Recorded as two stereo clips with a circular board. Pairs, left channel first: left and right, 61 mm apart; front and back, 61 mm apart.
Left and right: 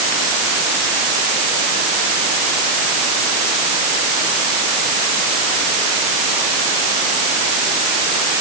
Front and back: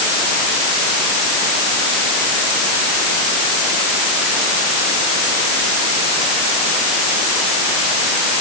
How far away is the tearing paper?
No tearing paper in this recording.